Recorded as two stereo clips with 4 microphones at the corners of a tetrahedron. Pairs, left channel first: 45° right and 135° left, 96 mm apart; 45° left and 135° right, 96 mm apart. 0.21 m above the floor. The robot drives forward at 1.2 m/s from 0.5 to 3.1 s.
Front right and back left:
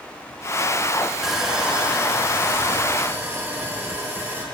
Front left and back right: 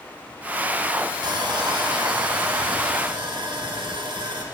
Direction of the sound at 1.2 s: 135° right.